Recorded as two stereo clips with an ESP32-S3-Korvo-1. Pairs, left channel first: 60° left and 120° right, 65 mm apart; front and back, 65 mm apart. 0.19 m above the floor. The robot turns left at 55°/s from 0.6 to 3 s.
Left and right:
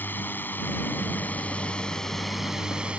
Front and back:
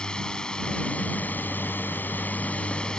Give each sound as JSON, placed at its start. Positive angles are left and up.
{"t": 0.0, "sound": "a drone", "azimuth_deg": 65}